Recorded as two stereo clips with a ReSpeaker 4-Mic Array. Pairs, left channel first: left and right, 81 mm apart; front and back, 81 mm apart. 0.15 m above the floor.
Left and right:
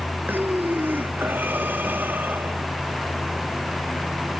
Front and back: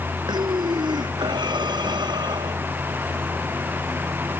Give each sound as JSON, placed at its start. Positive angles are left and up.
{"t": 0.3, "sound": "breathing", "azimuth_deg": -155}